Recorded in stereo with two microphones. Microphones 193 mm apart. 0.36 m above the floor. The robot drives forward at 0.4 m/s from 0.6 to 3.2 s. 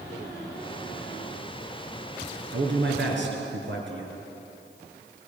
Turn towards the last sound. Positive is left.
turn(degrees=-75)  # may be behind; listen again after turning